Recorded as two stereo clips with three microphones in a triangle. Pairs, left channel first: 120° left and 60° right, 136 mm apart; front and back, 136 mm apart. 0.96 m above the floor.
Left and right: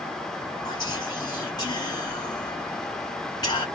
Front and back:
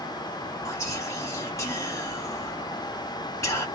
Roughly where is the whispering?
Ahead left.